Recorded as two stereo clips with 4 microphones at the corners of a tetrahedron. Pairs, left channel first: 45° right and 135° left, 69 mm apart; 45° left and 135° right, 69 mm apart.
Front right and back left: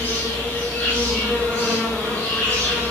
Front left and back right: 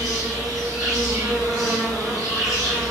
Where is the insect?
110° right, 1.1 m.